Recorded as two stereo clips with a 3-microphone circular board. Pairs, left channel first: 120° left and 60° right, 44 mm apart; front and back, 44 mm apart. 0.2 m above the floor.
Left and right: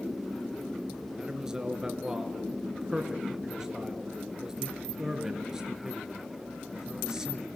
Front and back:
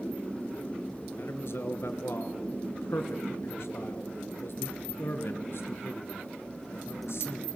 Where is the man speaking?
15° left, 3 m.